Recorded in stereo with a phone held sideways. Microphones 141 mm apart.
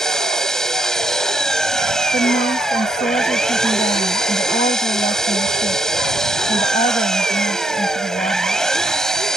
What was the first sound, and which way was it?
An engine running, 5° left (ahead or behind).